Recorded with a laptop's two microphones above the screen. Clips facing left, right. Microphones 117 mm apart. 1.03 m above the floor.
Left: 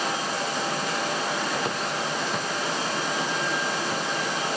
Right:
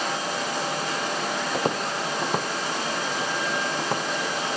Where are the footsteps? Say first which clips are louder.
Right 2 dB; 35° right (ahead or behind), 1.5 m; by 4.0 s 60° right (ahead or behind), 2.5 m.